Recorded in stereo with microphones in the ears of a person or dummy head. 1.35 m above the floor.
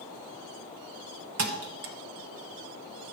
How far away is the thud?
About 1.0 m.